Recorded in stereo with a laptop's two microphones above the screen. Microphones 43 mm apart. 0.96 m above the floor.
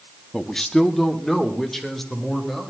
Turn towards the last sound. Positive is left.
turn(degrees=0)  # may be behind; listen again after turning